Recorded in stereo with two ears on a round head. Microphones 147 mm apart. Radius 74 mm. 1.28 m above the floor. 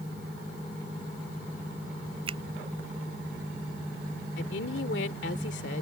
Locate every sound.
2.3 s a finger snap: 35° right (ahead or behind)
4.4 s a woman speaking: 80° left